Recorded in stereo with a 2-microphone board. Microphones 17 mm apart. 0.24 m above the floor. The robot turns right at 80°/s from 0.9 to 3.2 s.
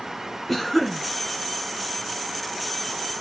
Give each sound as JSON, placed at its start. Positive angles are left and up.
{"t": 0.5, "sound": "a cough", "side_deg": 15, "distance_m": 1.9}